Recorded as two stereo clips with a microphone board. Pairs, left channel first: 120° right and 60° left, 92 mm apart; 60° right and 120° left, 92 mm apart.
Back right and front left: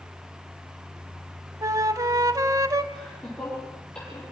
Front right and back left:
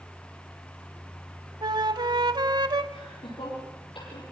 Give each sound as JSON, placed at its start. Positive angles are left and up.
{"t": 1.6, "sound": "a flute", "azimuth_deg": 105, "distance_m": 0.8}
{"t": 2.9, "sound": "laughter", "azimuth_deg": -40, "distance_m": 9.0}